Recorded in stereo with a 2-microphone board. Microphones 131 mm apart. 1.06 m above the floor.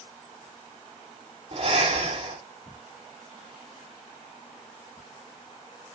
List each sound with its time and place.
1.5 s breathing: 55° right (ahead or behind), 5 m